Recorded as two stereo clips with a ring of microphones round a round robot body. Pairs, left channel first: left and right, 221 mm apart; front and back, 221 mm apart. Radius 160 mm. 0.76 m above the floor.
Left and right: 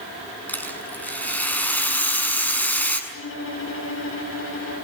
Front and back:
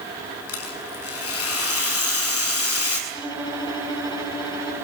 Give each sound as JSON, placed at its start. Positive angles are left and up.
{"t": 0.5, "sound": "a rattle", "azimuth_deg": 5, "distance_m": 7.0}
{"t": 3.1, "sound": "a violin", "azimuth_deg": 70, "distance_m": 8.5}